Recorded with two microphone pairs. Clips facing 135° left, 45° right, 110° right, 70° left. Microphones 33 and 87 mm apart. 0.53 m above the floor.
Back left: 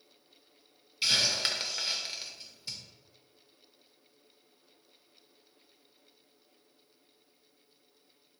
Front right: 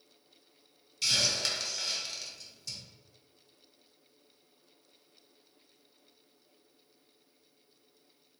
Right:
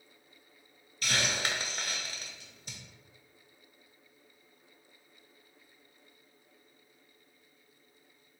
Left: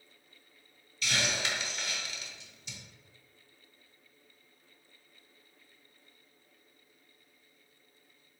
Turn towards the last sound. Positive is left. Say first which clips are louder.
# back left 2 dB, right 1 dB
turn(degrees=-160)